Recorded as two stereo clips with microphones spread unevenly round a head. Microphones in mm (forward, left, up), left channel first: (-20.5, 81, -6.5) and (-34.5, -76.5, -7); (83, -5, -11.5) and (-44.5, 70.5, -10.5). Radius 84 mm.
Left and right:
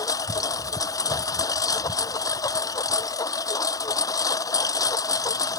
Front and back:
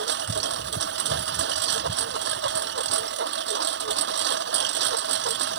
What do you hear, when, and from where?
0.0 s a lawn mower: 155° left